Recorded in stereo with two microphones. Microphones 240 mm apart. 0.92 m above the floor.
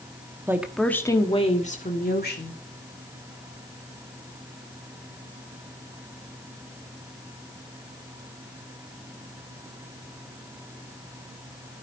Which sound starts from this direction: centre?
A woman speaking, at 0.5 s.